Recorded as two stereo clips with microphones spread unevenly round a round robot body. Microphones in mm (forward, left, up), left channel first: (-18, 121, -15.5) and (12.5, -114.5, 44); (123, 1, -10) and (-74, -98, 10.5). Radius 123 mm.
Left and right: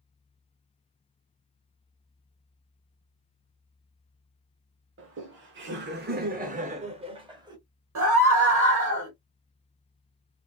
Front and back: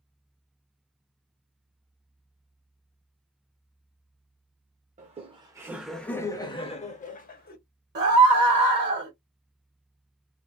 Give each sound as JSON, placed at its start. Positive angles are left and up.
{"t": 5.0, "sound": "laughter", "azimuth_deg": -110, "distance_m": 1.0}
{"t": 8.0, "sound": "a scream", "azimuth_deg": -115, "distance_m": 1.9}